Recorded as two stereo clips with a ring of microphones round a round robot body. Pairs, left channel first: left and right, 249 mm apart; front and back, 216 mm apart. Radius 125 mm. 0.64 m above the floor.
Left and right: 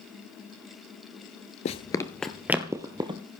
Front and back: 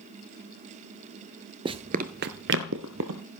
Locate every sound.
1.6 s running footsteps: 130° left, 0.7 m; by 3.2 s 160° right, 1.2 m